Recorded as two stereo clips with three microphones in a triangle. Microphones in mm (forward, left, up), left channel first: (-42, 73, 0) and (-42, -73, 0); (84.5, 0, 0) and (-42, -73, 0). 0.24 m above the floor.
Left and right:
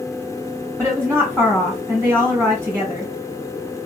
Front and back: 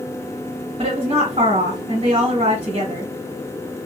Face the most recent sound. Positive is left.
turn(degrees=-155)